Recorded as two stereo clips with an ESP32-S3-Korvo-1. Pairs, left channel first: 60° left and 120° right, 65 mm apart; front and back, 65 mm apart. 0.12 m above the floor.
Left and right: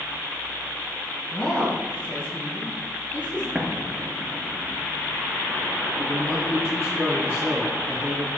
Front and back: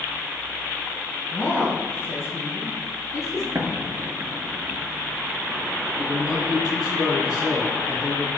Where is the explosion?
155° left, 0.6 m.